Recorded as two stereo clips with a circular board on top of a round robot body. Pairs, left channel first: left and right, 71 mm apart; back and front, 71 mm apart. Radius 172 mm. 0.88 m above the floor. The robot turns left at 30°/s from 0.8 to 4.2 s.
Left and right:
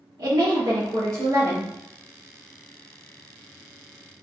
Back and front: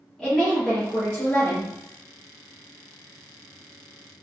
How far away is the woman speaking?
About 2.0 m.